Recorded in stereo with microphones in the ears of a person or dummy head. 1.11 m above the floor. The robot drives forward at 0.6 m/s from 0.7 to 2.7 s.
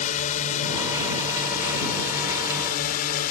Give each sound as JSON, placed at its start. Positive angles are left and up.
{"t": 0.0, "sound": "a drone", "side_deg": 40}